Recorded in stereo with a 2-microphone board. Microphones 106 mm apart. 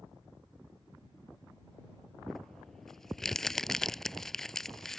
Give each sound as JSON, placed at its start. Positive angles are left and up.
{"t": 2.3, "sound": "crumpling", "side_deg": 5}